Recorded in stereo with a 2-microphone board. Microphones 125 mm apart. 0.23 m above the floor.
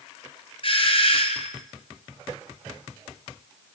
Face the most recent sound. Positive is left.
turn(degrees=50)  # may be behind; listen again after turning